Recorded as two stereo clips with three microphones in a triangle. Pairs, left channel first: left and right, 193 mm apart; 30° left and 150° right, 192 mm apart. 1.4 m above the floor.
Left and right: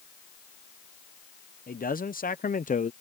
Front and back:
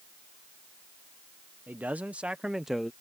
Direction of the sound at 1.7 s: 130° left.